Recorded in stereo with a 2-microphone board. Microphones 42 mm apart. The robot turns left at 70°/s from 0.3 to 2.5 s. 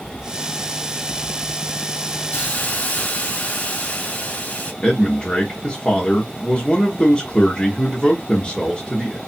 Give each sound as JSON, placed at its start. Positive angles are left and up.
{"t": 2.3, "sound": "a hiss", "side_deg": 50, "distance_m": 1.6}
{"t": 4.8, "sound": "a man speaking", "side_deg": 25, "distance_m": 1.0}